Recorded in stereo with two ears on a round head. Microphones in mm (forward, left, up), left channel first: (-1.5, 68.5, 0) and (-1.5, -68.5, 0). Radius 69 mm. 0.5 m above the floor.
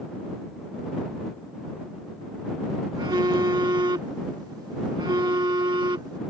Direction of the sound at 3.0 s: 25° right (ahead or behind).